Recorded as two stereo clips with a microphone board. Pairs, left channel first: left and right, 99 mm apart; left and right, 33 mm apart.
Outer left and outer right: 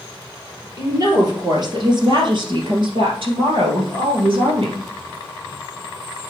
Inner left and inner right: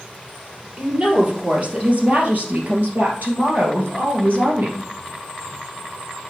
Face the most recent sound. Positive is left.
turn(degrees=-65)  # may be behind; listen again after turning